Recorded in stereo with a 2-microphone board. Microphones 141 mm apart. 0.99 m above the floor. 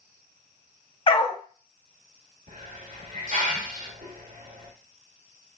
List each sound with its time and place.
1.1 s a dog barking: 40° left (ahead or behind), 0.6 m
2.5 s a hiss: 75° right (ahead or behind), 1.2 m